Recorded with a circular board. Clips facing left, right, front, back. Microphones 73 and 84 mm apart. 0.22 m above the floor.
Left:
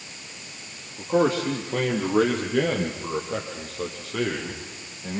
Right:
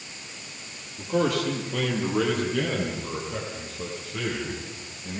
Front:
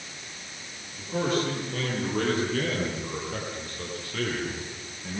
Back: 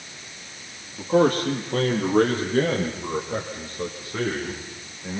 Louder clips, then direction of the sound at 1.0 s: Left 3 dB, back 8 dB; 145° left.